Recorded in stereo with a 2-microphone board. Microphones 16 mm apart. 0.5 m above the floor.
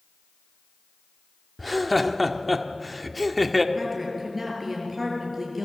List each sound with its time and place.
1.6 s laughter: centre (ahead or behind), 1.4 m
3.8 s a woman speaking: 5° right (ahead or behind), 8.5 m